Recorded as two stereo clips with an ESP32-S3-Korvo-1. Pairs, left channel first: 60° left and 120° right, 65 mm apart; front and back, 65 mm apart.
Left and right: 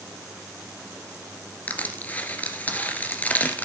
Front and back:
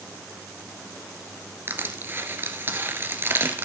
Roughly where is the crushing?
Behind left.